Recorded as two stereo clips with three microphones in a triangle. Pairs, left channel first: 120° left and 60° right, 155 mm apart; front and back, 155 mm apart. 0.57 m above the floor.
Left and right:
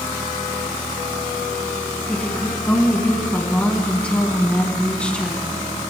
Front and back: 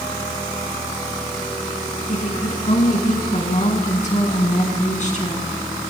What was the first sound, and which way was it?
A woman speaking, 40° left.